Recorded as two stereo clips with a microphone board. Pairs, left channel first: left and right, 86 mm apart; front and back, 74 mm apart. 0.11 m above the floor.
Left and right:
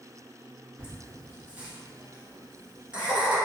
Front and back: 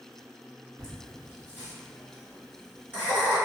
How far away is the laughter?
About 1.5 m.